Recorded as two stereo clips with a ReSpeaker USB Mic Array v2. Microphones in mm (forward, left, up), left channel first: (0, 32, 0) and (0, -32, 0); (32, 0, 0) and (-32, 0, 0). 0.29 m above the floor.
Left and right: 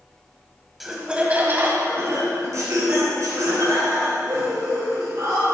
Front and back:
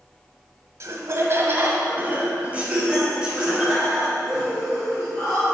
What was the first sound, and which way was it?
Laughter, 175° right.